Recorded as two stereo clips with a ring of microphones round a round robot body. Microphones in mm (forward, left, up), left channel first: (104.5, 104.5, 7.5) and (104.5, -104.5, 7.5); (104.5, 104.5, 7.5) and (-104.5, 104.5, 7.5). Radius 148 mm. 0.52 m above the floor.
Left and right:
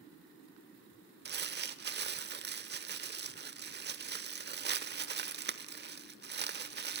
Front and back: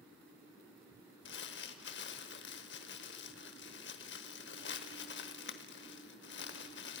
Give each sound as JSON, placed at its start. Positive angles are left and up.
{"t": 1.2, "sound": "crumpling", "azimuth_deg": -50, "distance_m": 0.9}